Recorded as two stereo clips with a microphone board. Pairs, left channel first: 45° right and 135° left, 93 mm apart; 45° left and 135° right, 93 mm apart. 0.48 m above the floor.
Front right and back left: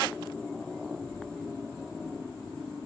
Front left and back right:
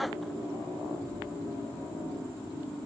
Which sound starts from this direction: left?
A child speaking, at 0.9 s.